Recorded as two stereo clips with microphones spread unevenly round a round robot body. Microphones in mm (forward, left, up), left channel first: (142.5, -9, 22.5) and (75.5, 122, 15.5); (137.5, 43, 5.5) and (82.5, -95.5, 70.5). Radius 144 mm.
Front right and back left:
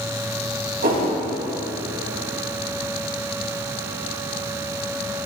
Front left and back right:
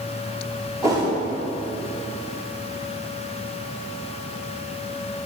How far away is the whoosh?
About 3.5 m.